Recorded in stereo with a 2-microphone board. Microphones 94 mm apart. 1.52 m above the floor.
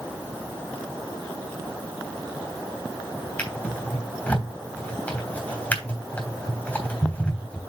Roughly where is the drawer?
Centre.